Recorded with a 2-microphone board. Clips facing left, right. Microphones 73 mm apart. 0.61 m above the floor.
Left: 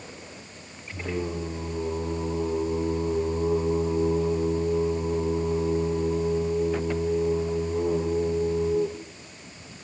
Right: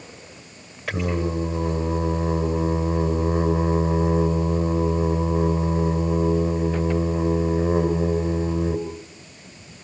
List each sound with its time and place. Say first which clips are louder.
0.9 s singing: right 6 dB; 80° right, 8.5 m